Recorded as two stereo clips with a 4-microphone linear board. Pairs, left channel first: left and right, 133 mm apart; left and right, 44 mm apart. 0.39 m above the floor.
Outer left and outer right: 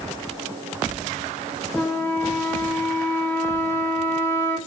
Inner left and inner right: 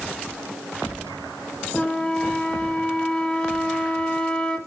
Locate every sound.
1.7 s a flute: 15° left (ahead or behind), 0.6 m